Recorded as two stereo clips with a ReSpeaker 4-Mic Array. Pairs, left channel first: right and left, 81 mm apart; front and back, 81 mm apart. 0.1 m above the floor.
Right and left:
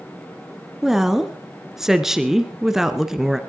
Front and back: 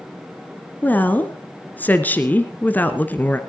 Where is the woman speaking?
15° left, 1.2 m.